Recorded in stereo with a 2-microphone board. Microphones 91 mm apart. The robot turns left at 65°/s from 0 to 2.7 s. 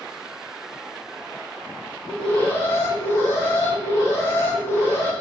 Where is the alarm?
175° right, 1.4 m; by 5.1 s 140° left, 1.4 m.